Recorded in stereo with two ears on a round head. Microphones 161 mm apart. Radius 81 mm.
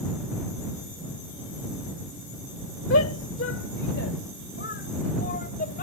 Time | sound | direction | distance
2.9 | a shout | 75° left (ahead or behind) | ?